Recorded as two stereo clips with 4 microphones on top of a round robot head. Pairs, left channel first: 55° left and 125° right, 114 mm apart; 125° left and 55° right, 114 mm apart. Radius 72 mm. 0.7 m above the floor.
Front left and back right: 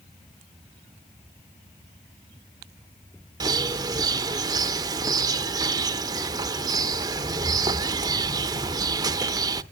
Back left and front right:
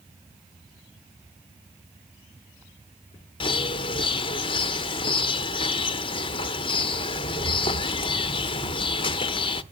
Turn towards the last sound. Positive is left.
turn(degrees=175)